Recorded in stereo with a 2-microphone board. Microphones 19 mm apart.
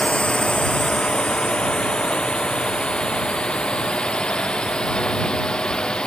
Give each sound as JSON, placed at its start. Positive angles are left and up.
{"t": 0.0, "sound": "a drone", "side_deg": 80}